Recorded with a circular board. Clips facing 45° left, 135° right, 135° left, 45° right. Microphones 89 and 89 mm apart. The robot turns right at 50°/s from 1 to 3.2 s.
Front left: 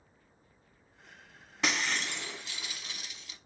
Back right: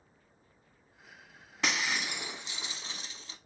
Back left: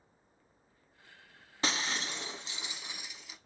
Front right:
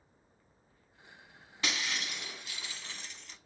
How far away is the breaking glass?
About 0.5 m.